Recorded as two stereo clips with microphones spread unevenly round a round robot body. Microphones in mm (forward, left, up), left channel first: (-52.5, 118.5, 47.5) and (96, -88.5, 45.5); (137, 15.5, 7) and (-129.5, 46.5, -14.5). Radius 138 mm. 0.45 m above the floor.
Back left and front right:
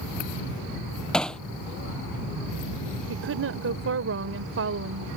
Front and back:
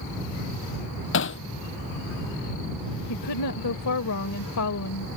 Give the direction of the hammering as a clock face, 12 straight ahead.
11 o'clock.